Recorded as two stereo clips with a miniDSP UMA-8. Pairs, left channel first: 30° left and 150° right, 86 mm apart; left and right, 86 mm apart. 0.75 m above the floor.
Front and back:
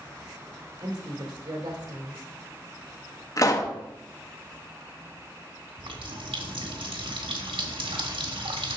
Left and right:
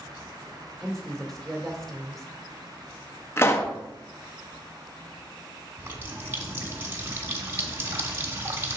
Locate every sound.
0.8 s a woman speaking: 175° left, 2 m
3.4 s a pop: 45° left, 0.7 m
5.8 s a running tap: 155° right, 1.2 m